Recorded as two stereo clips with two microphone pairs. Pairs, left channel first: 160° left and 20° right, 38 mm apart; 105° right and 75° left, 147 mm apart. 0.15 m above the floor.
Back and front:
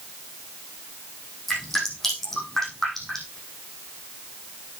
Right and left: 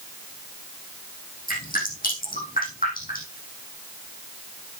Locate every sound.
1.5 s dripping: 120° right, 6 m